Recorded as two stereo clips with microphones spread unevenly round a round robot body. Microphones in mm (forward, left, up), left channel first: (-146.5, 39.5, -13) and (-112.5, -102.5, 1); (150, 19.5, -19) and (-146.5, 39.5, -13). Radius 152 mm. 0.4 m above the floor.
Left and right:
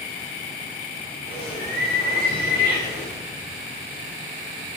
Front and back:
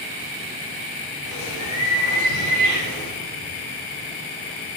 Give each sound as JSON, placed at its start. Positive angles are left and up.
{"t": 1.2, "sound": "a bird", "azimuth_deg": -15, "distance_m": 5.0}